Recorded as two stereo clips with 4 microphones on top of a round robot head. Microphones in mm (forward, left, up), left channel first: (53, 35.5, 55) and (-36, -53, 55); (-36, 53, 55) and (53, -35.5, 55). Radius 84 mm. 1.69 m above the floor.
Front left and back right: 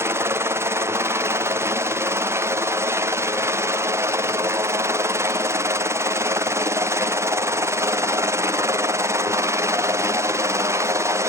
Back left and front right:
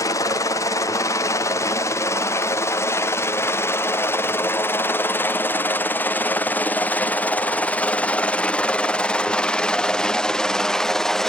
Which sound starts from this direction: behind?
A helicopter, at 0.0 s.